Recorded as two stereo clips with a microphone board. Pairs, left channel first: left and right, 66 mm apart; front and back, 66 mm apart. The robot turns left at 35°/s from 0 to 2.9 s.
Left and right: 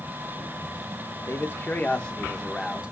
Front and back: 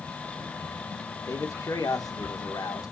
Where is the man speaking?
45° left, 1.2 m; by 2.9 s 15° right, 1.2 m.